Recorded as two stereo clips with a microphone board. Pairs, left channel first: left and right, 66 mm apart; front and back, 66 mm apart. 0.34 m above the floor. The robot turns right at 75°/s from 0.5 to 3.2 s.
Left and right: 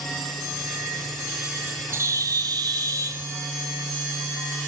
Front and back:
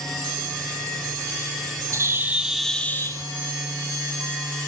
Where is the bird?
140° right, 0.6 m; by 3.2 s 45° right, 0.6 m.